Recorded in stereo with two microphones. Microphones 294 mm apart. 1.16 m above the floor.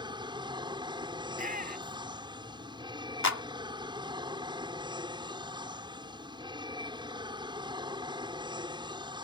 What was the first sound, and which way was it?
An aircraft, 15° right (ahead or behind).